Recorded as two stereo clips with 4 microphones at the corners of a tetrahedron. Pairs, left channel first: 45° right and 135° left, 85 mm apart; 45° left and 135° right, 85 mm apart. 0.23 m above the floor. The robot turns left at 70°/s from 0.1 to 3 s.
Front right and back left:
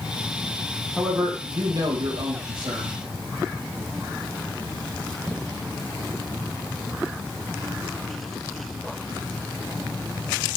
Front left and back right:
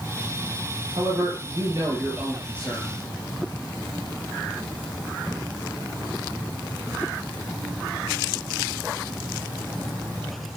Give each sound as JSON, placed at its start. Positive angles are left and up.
{"t": 1.0, "sound": "a man speaking", "azimuth_deg": -130, "distance_m": 5.5}